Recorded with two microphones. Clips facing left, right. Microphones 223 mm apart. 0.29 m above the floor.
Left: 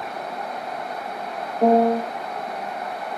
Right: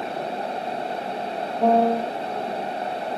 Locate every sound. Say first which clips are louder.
1.6 s a piano: left 2 dB; 25° left (ahead or behind), 1.8 m